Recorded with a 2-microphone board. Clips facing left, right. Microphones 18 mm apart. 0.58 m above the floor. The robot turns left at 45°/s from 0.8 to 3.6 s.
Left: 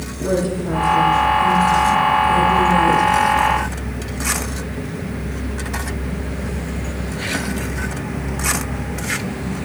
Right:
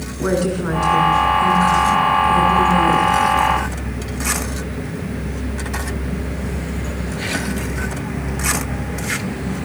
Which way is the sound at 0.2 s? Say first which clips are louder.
Right 1 dB; 110° right.